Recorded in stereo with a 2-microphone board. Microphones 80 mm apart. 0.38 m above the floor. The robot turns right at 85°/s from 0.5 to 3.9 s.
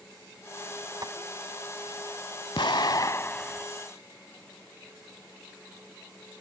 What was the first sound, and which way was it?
Tapping, 45° right (ahead or behind).